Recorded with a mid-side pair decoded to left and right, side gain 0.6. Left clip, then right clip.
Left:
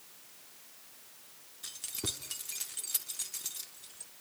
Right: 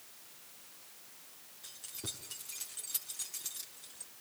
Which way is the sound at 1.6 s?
45° left.